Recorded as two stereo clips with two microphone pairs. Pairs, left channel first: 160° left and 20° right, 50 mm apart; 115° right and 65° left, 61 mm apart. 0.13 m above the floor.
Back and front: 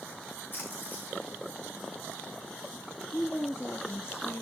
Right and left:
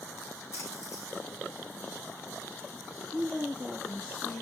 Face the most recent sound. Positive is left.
turn(degrees=175)